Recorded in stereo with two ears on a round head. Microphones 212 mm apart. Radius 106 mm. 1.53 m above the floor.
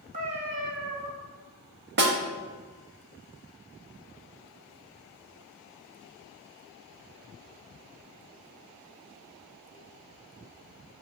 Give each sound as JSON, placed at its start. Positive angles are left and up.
{"t": 0.1, "sound": "a cat meowing", "side_deg": -35, "distance_m": 1.5}
{"t": 2.0, "sound": "a snare drum", "side_deg": -45, "distance_m": 1.1}